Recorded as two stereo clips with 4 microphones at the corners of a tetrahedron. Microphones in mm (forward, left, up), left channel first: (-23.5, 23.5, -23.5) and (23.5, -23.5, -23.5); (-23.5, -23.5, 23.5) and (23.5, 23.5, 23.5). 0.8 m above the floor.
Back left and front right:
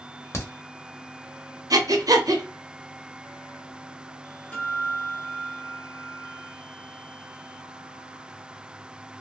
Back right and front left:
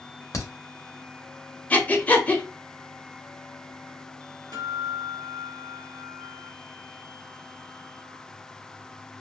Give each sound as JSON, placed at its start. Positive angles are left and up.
{"t": 0.3, "sound": "a crack", "azimuth_deg": -175, "distance_m": 0.9}
{"t": 1.7, "sound": "breathing", "azimuth_deg": -70, "distance_m": 0.6}
{"t": 4.5, "sound": "a guitar", "azimuth_deg": 60, "distance_m": 1.0}